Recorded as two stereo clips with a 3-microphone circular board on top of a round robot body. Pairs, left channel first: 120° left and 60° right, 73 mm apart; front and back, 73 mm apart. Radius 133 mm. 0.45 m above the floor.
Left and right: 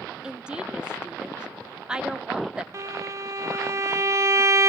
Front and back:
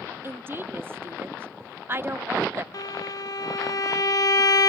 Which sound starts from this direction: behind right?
A woman speaking, at 0.2 s.